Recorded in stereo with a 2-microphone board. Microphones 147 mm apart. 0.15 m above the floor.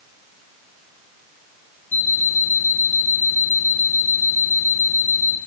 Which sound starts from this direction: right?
An alarm clock, at 1.9 s.